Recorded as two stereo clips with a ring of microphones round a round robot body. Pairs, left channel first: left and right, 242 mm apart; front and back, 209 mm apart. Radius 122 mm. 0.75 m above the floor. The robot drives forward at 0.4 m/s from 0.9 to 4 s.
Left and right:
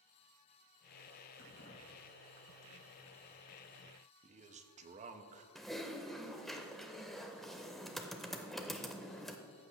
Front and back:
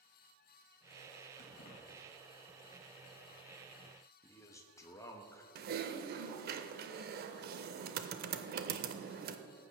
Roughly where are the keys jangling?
Ahead left.